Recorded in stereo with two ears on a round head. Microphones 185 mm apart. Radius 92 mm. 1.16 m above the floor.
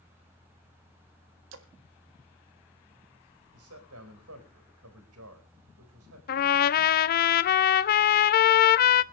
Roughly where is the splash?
Right.